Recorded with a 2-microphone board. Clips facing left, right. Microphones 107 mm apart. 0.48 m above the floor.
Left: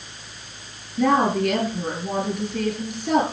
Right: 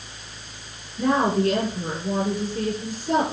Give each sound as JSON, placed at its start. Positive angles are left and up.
{"t": 1.0, "sound": "a woman speaking", "side_deg": 75, "distance_m": 9.0}